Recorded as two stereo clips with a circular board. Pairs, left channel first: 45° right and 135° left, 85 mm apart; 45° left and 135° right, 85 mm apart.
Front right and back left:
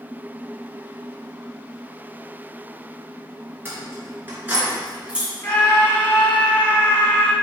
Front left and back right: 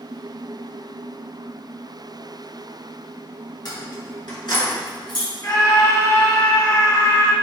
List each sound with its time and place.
3.6 s keys jangling: 75° left, 3 m; by 5.3 s 60° left, 1.9 m
5.4 s a scream: 15° left, 1.8 m